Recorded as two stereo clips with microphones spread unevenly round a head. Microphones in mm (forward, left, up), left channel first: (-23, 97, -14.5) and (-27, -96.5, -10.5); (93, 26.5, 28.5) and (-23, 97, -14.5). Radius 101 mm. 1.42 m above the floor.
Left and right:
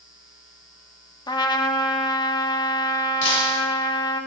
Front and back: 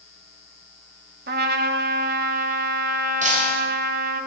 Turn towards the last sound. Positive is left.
turn(degrees=115)